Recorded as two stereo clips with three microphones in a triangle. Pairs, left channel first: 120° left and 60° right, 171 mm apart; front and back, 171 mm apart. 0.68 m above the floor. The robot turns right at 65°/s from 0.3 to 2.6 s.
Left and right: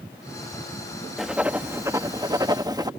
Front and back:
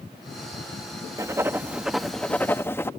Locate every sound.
1.2 s writing: 145° right; by 2.9 s 55° right